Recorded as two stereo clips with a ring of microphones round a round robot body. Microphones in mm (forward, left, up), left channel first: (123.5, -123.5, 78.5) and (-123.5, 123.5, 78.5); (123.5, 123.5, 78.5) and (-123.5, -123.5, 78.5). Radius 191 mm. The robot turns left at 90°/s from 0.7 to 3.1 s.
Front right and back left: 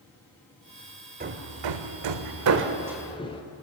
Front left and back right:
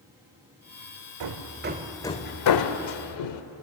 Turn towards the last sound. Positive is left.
turn(degrees=30)